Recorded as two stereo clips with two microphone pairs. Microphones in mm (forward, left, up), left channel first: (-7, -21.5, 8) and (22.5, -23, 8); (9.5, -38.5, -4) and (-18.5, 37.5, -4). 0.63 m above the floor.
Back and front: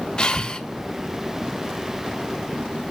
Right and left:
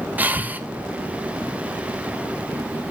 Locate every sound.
0.2 s breathing: 160° left, 0.7 m